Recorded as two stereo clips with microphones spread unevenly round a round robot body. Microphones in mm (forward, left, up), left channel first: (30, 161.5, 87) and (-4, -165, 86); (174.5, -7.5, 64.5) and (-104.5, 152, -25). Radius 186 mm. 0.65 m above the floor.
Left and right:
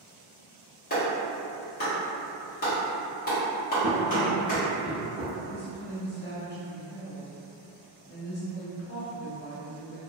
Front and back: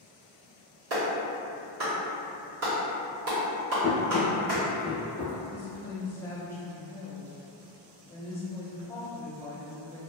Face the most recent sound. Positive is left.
turn(degrees=75)